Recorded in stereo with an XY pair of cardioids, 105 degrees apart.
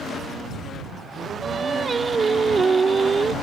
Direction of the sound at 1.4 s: 35° right.